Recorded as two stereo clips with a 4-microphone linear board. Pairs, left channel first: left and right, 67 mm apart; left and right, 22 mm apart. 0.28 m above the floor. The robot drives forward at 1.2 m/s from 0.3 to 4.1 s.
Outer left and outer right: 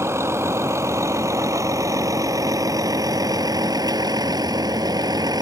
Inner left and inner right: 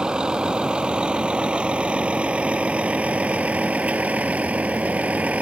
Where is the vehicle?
40° right (ahead or behind); by 5.4 s 80° right.